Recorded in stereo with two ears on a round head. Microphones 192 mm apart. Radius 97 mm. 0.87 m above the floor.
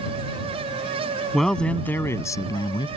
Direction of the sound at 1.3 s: Centre (ahead or behind).